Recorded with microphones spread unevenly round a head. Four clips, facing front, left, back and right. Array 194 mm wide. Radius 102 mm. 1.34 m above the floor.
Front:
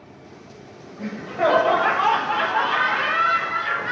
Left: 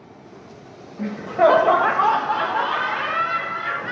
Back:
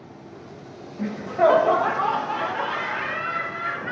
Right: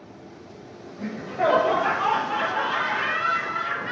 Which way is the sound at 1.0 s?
105° left.